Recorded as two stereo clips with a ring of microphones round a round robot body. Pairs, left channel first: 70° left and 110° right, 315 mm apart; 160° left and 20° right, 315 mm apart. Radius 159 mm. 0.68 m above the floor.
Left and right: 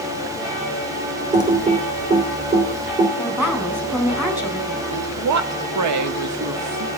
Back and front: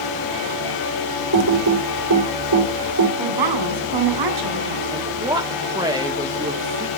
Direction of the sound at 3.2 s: 30° right.